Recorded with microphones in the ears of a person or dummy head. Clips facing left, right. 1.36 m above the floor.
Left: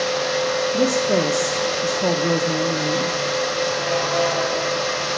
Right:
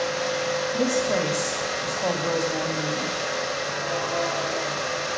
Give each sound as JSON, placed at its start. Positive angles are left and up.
{"t": 0.7, "sound": "a woman speaking", "side_deg": 50, "distance_m": 0.7}